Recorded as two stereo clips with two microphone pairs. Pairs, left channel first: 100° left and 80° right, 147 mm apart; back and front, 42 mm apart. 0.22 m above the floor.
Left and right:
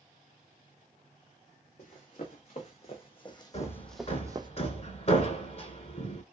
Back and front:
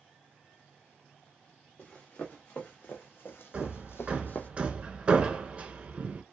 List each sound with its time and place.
1.8 s running footsteps: 135° left, 1.4 m; by 4.5 s 130° right, 0.5 m
3.5 s hammering: 55° left, 0.6 m